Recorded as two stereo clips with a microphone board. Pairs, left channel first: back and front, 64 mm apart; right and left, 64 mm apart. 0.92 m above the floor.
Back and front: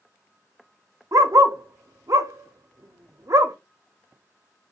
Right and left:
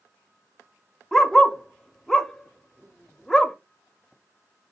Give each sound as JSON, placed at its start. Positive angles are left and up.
{"t": 1.1, "sound": "a dog barking", "azimuth_deg": -5, "distance_m": 0.7}